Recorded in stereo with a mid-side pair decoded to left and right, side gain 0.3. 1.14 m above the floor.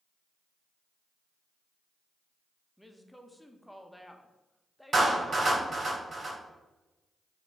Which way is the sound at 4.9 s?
55° right.